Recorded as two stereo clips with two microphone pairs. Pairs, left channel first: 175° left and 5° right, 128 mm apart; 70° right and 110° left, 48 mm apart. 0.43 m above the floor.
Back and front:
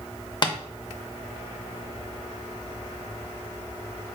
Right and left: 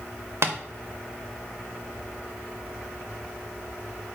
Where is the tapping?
120° left, 0.5 m.